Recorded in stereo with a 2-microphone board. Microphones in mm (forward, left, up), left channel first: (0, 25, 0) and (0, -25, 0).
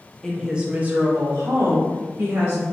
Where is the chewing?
No chewing in this recording.